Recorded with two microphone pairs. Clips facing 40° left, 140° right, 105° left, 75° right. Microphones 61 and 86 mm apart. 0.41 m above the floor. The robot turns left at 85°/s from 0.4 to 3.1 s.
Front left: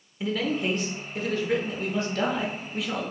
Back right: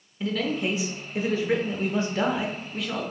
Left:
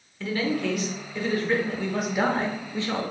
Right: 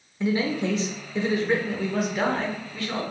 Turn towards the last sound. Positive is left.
turn(degrees=100)